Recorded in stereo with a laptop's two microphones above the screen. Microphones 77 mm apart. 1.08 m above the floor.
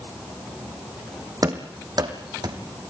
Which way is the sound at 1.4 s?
50° right (ahead or behind).